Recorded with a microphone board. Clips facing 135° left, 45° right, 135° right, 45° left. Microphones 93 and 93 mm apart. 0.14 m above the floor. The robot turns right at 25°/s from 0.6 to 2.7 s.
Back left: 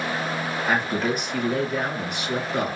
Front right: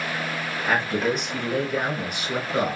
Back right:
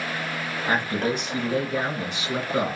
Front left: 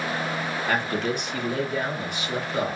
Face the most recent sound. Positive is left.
turn(degrees=-115)